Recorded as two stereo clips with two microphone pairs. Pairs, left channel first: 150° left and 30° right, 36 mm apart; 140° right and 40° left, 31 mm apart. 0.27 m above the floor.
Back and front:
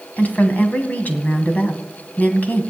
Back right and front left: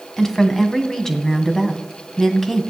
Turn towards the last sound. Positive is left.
turn(degrees=145)